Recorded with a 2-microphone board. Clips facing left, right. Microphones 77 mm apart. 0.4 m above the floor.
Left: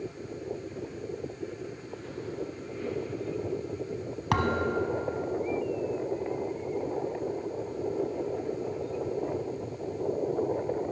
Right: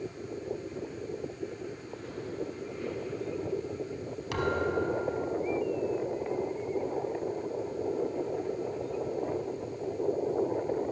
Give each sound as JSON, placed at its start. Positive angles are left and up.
{"t": 4.3, "sound": "a thud", "side_deg": 70, "distance_m": 0.6}